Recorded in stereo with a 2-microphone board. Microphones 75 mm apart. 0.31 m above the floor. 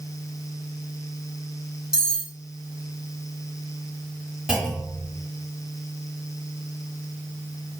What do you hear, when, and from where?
1.9 s cutlery clinking: 10° right (ahead or behind), 1.1 m
4.5 s a clunk: 15° right (ahead or behind), 1.3 m